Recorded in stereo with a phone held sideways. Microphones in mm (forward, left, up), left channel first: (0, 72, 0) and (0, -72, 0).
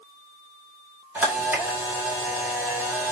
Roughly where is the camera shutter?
Centre.